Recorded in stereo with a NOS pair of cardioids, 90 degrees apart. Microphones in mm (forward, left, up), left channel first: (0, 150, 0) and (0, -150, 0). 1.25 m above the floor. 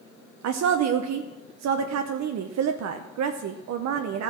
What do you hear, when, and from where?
0.4 s a woman speaking: 65° right, 0.7 m